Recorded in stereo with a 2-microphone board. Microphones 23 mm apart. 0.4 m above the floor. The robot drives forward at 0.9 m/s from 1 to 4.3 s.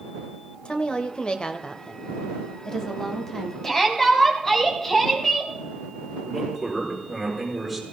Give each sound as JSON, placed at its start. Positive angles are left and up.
{"t": 0.7, "sound": "a woman speaking", "side_deg": 50, "distance_m": 1.3}
{"t": 3.6, "sound": "a shout", "side_deg": 20, "distance_m": 3.5}
{"t": 6.2, "sound": "a man speaking", "side_deg": 10, "distance_m": 7.5}